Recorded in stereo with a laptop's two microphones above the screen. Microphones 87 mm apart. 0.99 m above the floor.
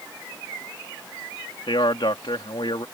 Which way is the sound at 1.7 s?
70° left (ahead or behind).